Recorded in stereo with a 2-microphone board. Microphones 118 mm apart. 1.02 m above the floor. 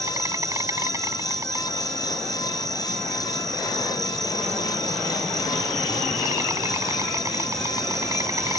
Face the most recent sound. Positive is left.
turn(degrees=-25)  # may be behind; listen again after turning